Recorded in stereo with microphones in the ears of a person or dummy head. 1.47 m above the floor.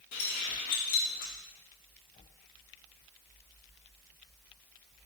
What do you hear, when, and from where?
0.1 s keys jangling: 40° left (ahead or behind), 0.5 m